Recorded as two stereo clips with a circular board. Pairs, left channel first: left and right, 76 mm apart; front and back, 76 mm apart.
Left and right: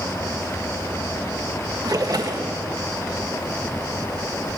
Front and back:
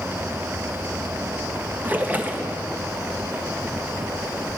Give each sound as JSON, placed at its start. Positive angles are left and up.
{"t": 1.8, "sound": "a splash", "azimuth_deg": -115, "distance_m": 0.5}